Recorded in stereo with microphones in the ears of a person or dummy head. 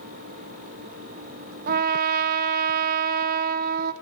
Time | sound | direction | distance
1.7 | a trumpet | 55° right (ahead or behind) | 0.5 m